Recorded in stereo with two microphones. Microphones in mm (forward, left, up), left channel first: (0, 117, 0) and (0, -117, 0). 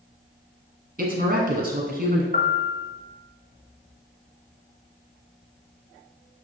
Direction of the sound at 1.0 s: 40° right (ahead or behind).